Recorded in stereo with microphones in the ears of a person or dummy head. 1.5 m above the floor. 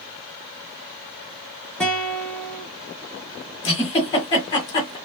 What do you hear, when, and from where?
1.8 s a guitar: 5° left (ahead or behind), 0.7 m
3.6 s a giggle: 25° left (ahead or behind), 1.5 m